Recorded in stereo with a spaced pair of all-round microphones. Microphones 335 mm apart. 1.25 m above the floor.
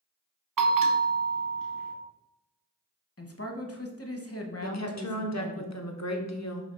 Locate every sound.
0.6 s a bell: 75° right (ahead or behind), 0.8 m
3.2 s a man speaking: 45° left (ahead or behind), 1.0 m
4.6 s a woman speaking: 50° left (ahead or behind), 0.9 m